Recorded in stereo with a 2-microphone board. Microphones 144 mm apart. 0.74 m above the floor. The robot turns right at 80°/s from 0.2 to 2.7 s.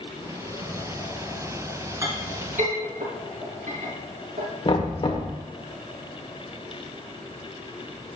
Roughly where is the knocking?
Left.